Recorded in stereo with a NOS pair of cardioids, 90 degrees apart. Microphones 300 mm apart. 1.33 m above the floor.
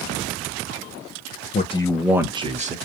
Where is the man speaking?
30° left, 0.6 m; by 2.8 s 25° right, 0.9 m.